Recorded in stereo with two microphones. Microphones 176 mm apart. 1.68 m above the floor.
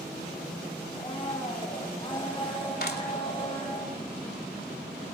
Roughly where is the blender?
Left.